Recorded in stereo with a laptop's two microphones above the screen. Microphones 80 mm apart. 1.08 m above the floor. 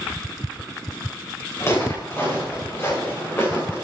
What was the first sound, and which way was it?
Footsteps, 35° left (ahead or behind).